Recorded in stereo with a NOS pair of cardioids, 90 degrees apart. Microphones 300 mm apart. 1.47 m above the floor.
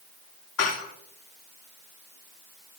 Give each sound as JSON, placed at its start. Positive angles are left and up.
{"t": 0.6, "sound": "dishes clattering", "azimuth_deg": 65, "distance_m": 2.5}